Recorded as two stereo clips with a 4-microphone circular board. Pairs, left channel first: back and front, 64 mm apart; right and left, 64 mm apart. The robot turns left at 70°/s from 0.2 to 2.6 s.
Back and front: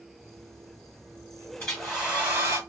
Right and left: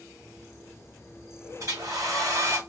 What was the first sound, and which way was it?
A hair dryer, 110° left.